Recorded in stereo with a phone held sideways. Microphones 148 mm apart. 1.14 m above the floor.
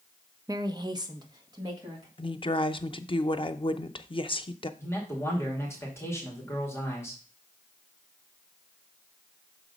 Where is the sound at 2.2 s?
35° left (ahead or behind), 0.6 m.